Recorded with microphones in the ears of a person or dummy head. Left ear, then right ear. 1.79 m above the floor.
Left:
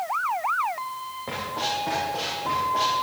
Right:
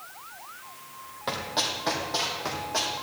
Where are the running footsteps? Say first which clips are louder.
Even; 55° right (ahead or behind), 3.5 m; by 2.9 s 65° right (ahead or behind), 5 m.